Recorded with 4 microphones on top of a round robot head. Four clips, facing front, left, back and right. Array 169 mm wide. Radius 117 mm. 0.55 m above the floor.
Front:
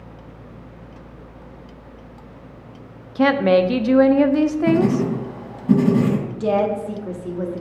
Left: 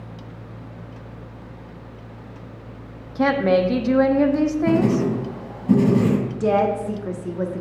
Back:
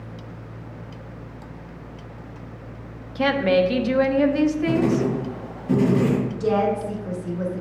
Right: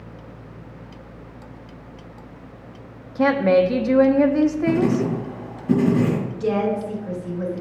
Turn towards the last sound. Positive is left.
turn(degrees=60)